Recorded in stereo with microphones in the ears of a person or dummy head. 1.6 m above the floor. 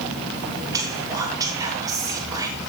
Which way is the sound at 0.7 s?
15° right (ahead or behind).